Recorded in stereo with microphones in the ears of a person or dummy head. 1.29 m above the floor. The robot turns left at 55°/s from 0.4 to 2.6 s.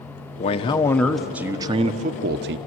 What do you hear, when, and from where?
0.4 s a man speaking: 45° left, 0.9 m; by 2.6 s 75° right, 0.9 m